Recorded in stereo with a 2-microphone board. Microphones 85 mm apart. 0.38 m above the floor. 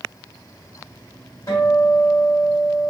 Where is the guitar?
40° left (ahead or behind), 1.7 m.